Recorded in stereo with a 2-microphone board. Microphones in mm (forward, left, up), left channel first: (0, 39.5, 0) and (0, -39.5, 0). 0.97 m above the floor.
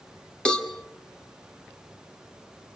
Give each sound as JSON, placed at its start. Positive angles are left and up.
{"t": 0.5, "sound": "a cowbell", "side_deg": 10, "distance_m": 1.8}